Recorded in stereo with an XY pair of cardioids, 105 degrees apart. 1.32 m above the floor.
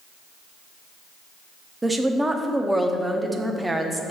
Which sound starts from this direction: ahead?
A woman speaking, at 1.8 s.